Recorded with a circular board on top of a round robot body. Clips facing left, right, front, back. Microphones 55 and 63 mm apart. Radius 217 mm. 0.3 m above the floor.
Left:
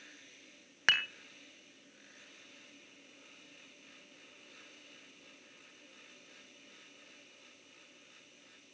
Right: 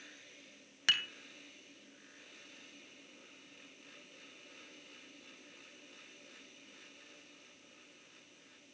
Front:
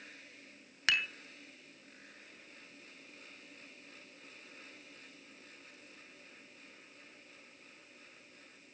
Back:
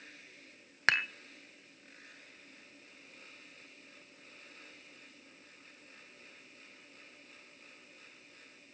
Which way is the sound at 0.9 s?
135° left.